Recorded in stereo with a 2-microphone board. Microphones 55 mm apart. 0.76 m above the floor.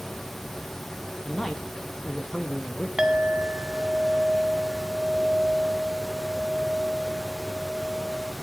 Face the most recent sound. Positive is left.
turn(degrees=-10)  # may be behind; listen again after turning